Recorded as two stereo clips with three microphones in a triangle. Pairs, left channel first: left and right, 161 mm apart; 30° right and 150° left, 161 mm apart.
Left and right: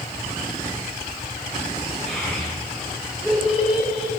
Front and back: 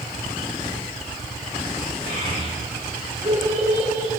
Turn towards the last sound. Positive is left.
turn(degrees=-170)